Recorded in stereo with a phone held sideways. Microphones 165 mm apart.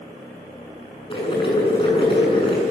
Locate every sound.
1.1 s boiling: 30° left (ahead or behind), 8 m